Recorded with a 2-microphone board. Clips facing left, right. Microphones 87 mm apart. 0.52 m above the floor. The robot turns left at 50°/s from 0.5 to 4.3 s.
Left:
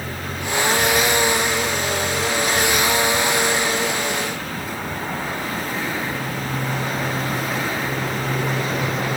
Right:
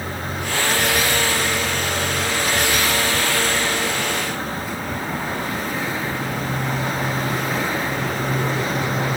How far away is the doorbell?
No doorbell in this recording.